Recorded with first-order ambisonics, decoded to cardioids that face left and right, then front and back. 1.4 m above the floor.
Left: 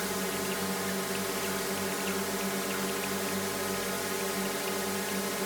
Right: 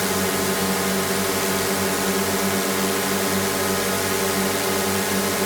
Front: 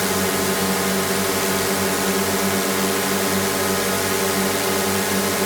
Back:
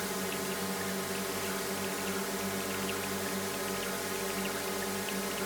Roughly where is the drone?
Ahead right.